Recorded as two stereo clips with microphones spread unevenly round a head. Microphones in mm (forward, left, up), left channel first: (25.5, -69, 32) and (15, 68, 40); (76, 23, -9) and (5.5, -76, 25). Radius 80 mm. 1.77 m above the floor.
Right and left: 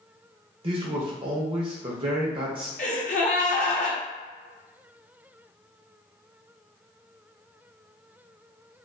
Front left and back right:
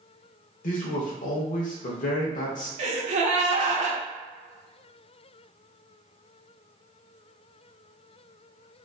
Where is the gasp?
130° right, 0.6 m.